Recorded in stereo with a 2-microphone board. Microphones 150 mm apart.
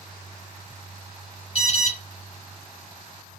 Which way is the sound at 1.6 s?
40° left (ahead or behind).